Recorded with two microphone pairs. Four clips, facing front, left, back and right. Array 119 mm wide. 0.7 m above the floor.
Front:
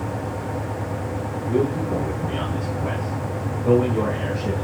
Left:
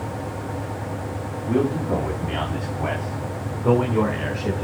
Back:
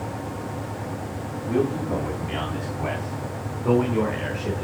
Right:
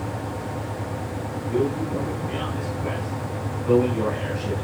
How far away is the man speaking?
About 3 m.